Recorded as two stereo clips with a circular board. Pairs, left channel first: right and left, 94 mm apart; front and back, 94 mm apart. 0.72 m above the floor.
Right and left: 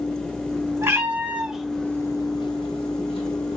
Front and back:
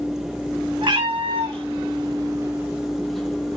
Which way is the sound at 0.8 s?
150° left.